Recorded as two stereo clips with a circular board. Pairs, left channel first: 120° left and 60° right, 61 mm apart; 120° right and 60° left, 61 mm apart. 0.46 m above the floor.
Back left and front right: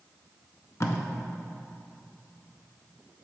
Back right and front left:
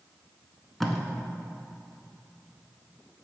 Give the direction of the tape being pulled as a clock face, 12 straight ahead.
7 o'clock.